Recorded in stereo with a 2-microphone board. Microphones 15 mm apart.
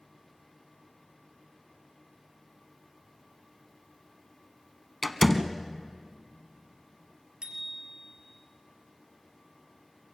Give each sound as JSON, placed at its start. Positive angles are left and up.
{"t": 5.0, "sound": "a door slam", "side_deg": 0, "distance_m": 1.0}
{"t": 7.4, "sound": "a bicycle bell", "side_deg": -70, "distance_m": 3.0}